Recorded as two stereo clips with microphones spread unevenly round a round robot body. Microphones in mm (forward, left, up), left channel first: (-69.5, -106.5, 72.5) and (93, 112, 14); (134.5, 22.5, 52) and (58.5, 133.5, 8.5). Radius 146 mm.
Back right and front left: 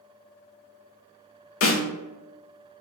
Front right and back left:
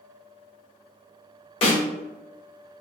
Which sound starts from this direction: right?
A snare drum, at 1.6 s.